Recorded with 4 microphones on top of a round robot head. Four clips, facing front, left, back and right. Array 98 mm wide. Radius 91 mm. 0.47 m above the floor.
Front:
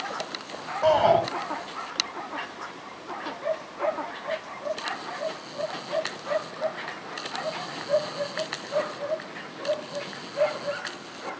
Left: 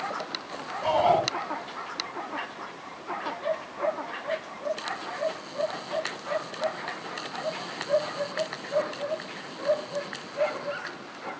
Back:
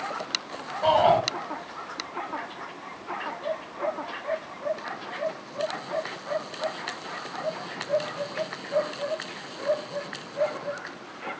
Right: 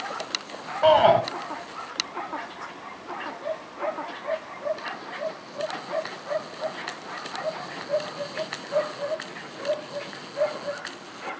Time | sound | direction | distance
0.8 | a shout | 75° right | 7 m